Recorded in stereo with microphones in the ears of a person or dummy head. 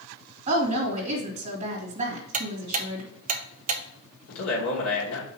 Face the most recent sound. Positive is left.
turn(degrees=80)